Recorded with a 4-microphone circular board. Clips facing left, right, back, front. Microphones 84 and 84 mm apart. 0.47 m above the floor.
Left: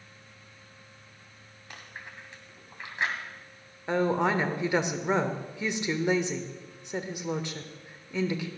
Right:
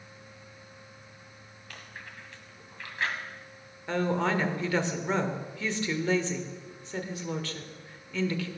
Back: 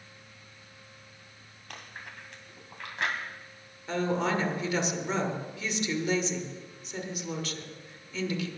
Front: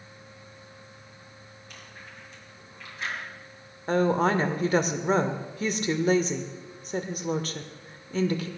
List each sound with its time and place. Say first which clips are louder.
1.7 s chewing: left 1 dB, back 4 dB; 160° left, 2.5 m
3.9 s a woman speaking: left 2 dB, front 6 dB; 25° left, 1.2 m